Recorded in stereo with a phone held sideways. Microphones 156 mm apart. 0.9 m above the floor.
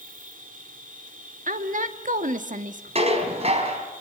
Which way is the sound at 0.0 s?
65° right (ahead or behind).